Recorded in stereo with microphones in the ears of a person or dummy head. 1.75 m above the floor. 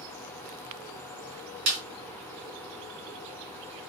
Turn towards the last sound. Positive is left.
turn(degrees=-35)  # may be behind; listen again after turning